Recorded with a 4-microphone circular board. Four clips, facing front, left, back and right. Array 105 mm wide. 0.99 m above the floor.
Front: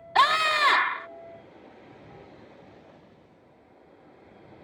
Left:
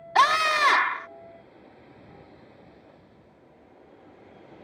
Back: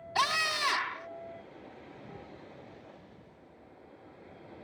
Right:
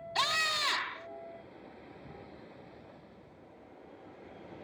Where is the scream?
60° left.